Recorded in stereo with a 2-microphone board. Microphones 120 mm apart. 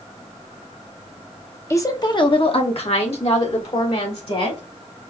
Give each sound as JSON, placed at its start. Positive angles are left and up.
{"t": 1.7, "sound": "a woman speaking", "side_deg": 25, "distance_m": 0.7}